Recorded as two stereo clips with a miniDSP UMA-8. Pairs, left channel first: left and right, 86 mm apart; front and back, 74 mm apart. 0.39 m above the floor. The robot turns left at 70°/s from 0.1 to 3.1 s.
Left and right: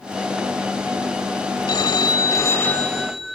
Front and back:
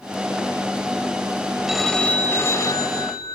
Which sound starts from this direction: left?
A phone ringing, at 1.7 s.